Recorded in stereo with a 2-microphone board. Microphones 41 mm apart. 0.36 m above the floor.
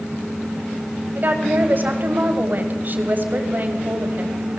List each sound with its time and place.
1.1 s a woman speaking: 45° right (ahead or behind), 1.6 m